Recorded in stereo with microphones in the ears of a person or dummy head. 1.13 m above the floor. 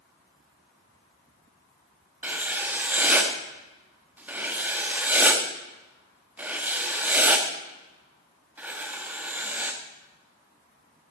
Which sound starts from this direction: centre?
Writing, at 2.2 s.